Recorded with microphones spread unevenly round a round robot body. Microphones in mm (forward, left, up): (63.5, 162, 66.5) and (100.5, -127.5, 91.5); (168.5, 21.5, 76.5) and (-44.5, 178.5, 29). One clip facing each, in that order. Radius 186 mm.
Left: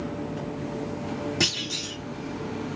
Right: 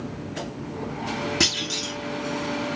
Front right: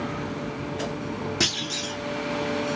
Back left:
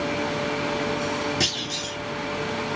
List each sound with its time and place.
1.4 s a clunk: 130° right, 1.1 m